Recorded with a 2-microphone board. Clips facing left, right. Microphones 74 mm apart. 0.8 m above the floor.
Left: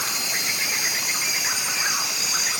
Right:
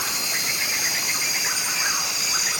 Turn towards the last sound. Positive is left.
No sound to turn to.